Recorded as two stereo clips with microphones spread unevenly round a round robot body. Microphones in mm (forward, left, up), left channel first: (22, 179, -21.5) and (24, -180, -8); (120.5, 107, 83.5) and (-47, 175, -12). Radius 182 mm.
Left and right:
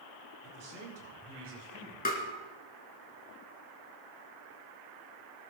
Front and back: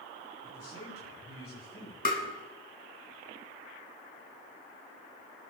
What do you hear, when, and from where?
0.4 s a man speaking: 45° right, 5.5 m; by 1.9 s 30° right, 6.5 m
2.0 s tapping: 25° left, 3 m